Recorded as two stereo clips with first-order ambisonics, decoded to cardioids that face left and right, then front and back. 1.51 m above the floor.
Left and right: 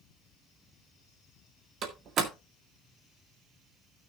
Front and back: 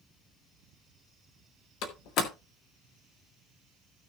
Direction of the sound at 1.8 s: 35° right.